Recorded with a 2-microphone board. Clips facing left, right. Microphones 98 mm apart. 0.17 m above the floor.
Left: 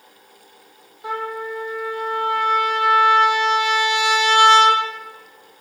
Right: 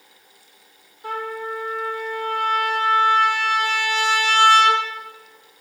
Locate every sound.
1.0 s a trumpet: 15° left (ahead or behind), 3 m